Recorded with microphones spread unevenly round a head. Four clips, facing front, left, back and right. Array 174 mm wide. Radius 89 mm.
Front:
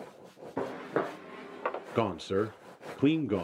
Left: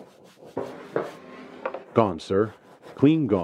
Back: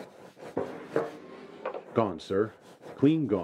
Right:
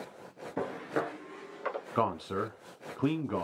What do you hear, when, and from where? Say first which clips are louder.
0.6 s footsteps: left 4 dB, back 1 dB; 25° left, 1.4 m; by 1.9 s 40° left, 2 m
1.9 s a man speaking: left 11 dB, back 3 dB; 85° left, 0.5 m